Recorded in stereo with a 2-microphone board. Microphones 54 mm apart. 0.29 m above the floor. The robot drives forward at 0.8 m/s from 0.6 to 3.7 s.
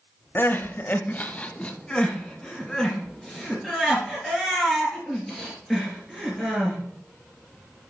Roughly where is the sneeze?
No sneeze in this recording.